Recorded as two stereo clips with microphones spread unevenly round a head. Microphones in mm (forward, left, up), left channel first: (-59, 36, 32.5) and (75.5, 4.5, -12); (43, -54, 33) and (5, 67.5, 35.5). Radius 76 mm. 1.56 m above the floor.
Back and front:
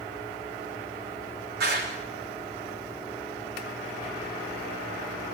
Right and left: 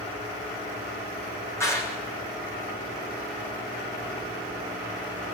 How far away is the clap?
About 3 m.